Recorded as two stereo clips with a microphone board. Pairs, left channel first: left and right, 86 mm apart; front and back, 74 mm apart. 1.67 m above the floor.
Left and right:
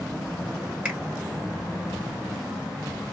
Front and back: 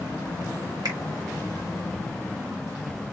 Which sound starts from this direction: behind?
A finger snap, at 0.8 s.